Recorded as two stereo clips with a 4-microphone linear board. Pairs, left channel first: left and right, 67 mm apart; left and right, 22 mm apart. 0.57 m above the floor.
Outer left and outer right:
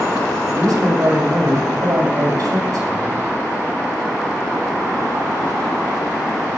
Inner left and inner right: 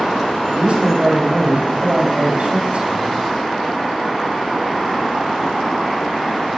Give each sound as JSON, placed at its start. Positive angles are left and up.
{"t": 0.5, "sound": "a man speaking", "side_deg": -55, "distance_m": 2.0}